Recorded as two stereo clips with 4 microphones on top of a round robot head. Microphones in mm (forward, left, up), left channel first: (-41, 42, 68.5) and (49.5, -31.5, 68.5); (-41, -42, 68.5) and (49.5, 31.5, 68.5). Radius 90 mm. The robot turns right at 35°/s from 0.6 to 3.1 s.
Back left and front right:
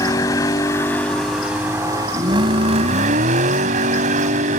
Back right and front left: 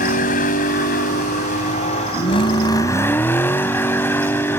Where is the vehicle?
155° right; by 4.6 s 65° right.